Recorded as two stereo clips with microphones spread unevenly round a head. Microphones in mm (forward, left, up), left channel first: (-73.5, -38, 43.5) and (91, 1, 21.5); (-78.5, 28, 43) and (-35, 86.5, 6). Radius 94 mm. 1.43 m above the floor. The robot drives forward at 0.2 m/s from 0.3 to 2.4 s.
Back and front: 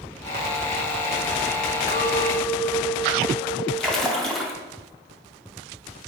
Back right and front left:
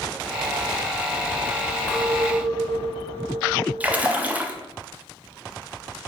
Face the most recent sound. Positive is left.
turn(degrees=100)